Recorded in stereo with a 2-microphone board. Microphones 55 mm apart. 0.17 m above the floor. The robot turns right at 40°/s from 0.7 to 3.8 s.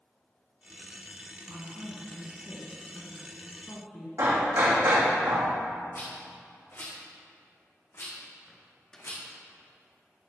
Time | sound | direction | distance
1.5 | a woman speaking | 100° right | 1.5 m
4.2 | hammering | 65° right (ahead or behind) | 2.5 m
5.9 | a rattle | 50° left (ahead or behind) | 3.5 m
8.5 | a microwave | 10° left (ahead or behind) | 1.5 m